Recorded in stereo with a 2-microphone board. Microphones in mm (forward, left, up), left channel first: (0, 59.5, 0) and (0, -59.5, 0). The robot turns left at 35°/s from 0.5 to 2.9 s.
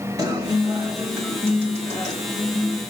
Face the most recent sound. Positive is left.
turn(degrees=125)